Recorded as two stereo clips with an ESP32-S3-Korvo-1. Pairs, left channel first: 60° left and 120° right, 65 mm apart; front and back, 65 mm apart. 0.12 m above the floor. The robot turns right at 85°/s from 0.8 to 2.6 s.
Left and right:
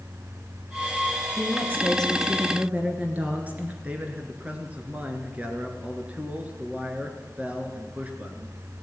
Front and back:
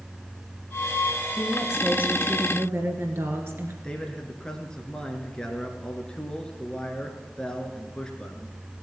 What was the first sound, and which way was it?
A woman speaking, 80° left.